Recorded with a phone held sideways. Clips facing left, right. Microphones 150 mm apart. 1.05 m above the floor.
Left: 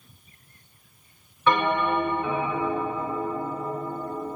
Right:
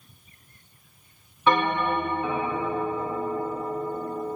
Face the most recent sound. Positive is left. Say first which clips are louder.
# even
turn(degrees=-25)  # may be behind; listen again after turning